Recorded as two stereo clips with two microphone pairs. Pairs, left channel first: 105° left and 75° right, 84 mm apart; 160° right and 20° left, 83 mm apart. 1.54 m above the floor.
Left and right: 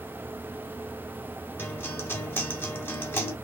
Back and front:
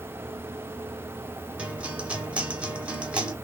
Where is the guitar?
80° left, 1.4 m.